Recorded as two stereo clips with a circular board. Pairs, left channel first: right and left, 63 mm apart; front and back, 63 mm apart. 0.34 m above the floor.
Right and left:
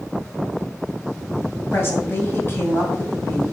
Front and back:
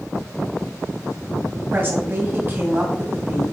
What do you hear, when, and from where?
1.7 s a woman speaking: 135° right, 2 m